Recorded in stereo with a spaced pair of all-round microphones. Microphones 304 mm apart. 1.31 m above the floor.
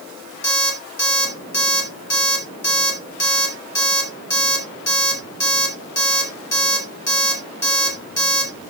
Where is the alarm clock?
50° left (ahead or behind), 3 m.